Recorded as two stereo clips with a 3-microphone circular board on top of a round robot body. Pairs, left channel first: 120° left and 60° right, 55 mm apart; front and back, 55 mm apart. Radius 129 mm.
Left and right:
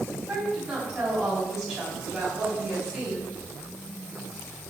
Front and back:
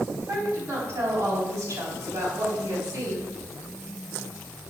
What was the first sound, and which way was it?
A woman speaking, 135° right.